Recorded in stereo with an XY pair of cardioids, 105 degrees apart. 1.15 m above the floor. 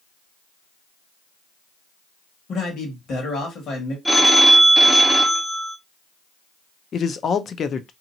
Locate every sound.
2.5 s a man speaking: 65° left, 1.8 m
4.0 s a phone ringing: straight ahead, 0.6 m
6.9 s a man speaking: 50° left, 0.5 m